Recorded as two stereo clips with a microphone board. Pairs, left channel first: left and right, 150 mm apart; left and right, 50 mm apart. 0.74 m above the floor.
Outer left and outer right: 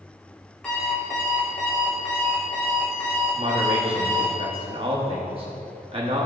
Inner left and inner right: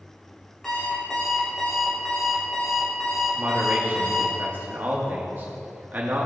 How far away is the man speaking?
About 1.1 m.